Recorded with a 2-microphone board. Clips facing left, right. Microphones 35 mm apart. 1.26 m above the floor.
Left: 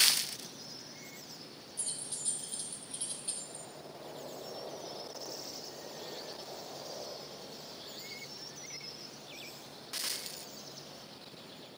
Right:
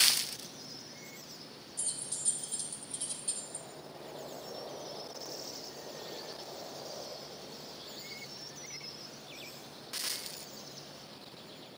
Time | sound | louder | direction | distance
1.8 | keys jangling | right 1 dB | 20° left (ahead or behind) | 2 m